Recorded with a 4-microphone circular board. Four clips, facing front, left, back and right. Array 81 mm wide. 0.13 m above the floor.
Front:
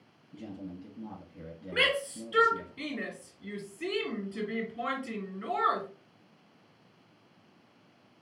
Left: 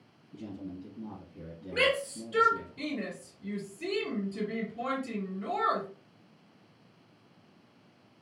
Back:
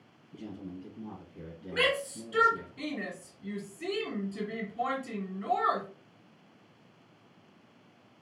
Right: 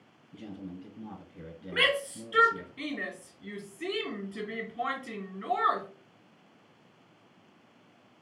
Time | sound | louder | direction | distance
0.3 | a man speaking | left 1 dB, even | 100° right | 1.5 m
1.7 | a shout | left 1 dB, even | 80° right | 1.9 m